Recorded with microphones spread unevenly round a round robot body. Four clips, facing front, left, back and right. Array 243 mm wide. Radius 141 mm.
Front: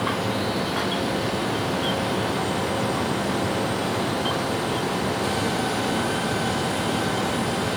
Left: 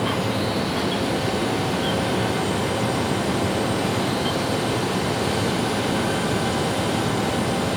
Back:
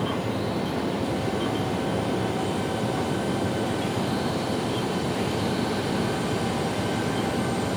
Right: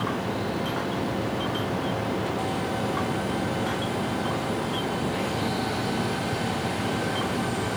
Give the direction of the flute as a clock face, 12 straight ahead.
No flute in this recording.